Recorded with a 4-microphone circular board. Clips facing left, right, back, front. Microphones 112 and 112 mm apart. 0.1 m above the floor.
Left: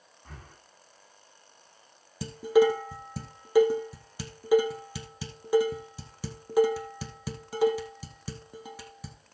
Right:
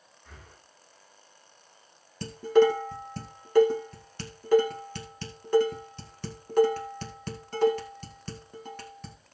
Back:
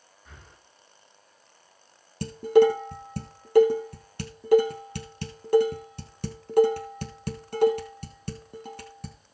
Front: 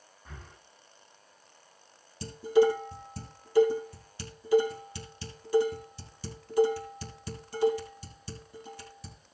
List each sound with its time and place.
0.2 s breathing: 50° left, 5 m
2.2 s dishes clattering: 170° left, 2 m